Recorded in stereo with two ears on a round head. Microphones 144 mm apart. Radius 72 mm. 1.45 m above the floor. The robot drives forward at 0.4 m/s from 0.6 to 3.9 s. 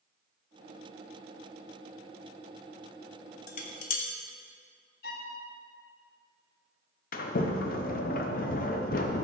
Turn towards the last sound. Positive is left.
turn(degrees=55)  # may be behind; listen again after turning